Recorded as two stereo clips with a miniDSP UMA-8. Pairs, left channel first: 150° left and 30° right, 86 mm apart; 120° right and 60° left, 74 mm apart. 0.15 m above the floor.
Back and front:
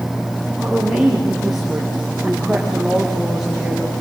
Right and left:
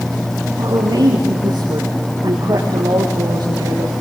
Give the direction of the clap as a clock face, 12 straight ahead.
No clap in this recording.